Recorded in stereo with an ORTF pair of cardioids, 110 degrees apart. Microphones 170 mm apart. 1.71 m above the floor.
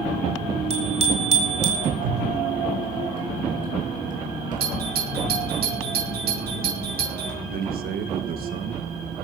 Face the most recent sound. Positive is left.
turn(degrees=-65)